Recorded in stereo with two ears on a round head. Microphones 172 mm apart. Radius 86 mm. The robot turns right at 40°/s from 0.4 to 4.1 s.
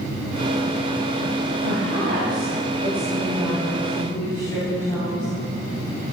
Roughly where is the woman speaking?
Right.